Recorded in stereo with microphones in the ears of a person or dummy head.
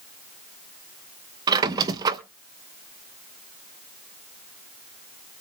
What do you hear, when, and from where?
1.5 s a squeak: 20° right (ahead or behind), 0.9 m